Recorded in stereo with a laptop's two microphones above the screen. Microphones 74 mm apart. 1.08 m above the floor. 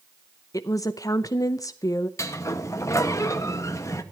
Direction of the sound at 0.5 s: 45° left (ahead or behind).